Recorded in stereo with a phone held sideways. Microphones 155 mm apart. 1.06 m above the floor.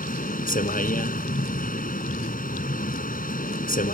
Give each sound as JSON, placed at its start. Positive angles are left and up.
{"t": 0.0, "sound": "a vehicle", "side_deg": 70}